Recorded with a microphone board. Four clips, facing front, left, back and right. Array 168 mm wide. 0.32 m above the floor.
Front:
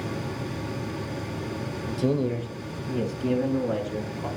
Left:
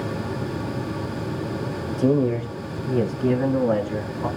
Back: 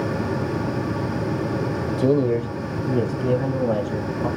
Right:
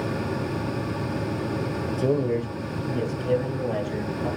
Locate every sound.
1.9 s a man speaking: 170° right, 0.9 m; by 4.3 s 120° left, 2.5 m